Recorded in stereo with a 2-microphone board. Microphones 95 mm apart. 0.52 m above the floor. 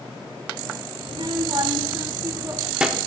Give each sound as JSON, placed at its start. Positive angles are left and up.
{"t": 1.0, "sound": "a child speaking", "side_deg": -60, "distance_m": 1.5}